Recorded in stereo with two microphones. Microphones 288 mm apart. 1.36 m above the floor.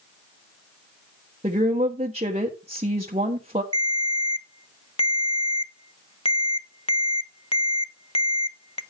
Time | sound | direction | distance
1.4 | a woman speaking | 20° right (ahead or behind) | 1.1 m
3.7 | a ringtone | 20° left (ahead or behind) | 0.6 m